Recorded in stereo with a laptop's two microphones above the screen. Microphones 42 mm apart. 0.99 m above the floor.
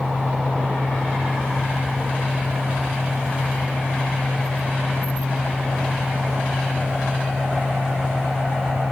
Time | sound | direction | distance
0.0 | a fan | 5° left (ahead or behind) | ?